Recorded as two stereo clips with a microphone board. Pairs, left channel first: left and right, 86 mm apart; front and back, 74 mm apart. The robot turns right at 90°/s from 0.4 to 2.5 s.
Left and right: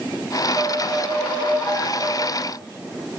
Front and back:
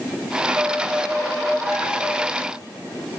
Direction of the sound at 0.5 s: 100° right.